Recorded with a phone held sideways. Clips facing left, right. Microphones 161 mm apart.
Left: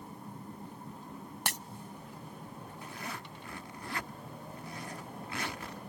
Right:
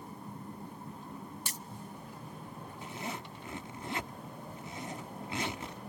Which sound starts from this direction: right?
A zipper, at 2.8 s.